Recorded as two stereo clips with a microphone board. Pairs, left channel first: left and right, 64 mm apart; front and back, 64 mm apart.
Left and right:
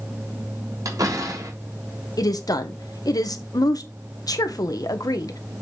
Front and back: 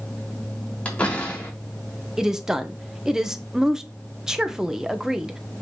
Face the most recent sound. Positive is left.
turn(degrees=100)